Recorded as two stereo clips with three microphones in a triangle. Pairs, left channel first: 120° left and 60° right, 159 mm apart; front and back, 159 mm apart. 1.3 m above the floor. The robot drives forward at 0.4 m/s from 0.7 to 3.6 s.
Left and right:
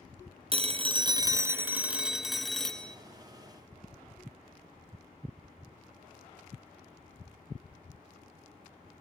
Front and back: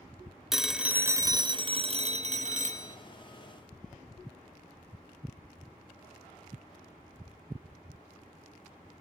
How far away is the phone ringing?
About 0.5 m.